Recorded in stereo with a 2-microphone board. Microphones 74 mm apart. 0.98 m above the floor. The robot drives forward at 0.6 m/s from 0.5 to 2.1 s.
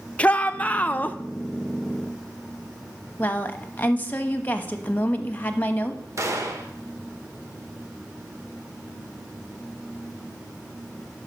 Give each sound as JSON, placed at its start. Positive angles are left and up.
{"t": 0.2, "sound": "a shout", "side_deg": 20, "distance_m": 0.6}
{"t": 3.2, "sound": "a woman speaking", "side_deg": 25, "distance_m": 0.9}
{"t": 6.2, "sound": "a gunshot", "side_deg": -45, "distance_m": 1.1}